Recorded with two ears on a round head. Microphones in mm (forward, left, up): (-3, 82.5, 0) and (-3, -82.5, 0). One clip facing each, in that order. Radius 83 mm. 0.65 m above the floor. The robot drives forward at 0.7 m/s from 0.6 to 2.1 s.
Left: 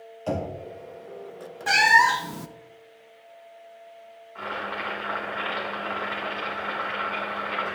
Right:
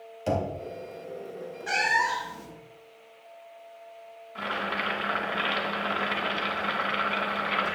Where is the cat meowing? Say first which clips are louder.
Left 7 dB; 65° left (ahead or behind), 0.6 m; by 2.5 s 70° left (ahead or behind), 0.6 m.